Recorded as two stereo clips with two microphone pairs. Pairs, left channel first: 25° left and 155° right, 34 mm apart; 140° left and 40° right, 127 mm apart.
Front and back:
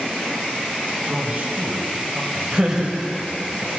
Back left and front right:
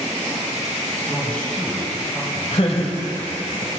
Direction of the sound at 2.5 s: 150° left.